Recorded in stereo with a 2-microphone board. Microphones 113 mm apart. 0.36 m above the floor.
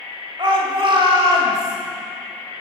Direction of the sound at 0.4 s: 45° right (ahead or behind).